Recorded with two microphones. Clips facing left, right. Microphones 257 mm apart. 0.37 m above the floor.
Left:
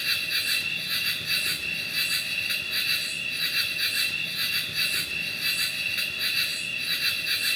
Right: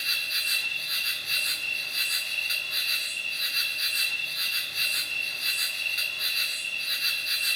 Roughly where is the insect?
Left.